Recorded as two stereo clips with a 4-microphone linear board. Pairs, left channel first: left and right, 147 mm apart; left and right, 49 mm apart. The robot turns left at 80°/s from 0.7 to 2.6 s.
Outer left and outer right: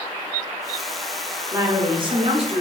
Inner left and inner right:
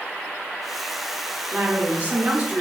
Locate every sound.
1.5 s a woman speaking: 20° right, 0.9 m; by 2.6 s 110° right, 0.9 m